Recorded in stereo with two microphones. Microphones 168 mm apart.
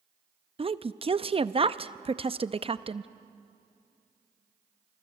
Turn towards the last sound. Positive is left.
turn(degrees=-35)  # may be behind; listen again after turning